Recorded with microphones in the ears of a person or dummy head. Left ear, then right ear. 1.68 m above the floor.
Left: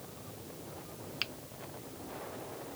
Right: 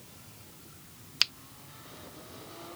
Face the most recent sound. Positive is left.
turn(degrees=-45)  # may be behind; listen again after turning